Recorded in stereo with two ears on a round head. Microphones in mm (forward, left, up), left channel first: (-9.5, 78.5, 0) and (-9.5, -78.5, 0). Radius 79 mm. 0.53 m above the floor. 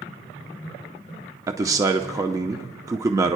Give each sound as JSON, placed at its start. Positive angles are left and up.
{"t": 1.5, "sound": "a man speaking", "side_deg": -20, "distance_m": 0.7}